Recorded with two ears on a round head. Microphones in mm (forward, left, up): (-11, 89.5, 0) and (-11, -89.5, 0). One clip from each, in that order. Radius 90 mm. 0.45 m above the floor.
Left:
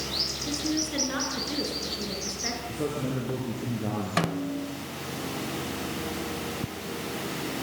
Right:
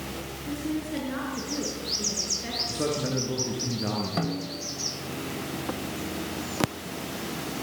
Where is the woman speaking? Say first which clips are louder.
Left 3 dB; 35° left (ahead or behind), 6 m.